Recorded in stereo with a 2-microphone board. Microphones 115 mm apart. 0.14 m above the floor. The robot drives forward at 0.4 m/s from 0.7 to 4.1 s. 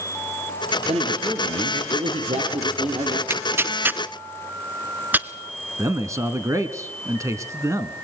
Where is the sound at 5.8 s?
25° right (ahead or behind), 1.3 m.